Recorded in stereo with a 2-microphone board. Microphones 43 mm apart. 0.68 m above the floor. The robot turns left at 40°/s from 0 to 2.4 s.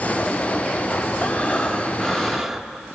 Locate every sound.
1.2 s breathing: 45° left, 0.7 m; by 2.8 s 5° right, 0.7 m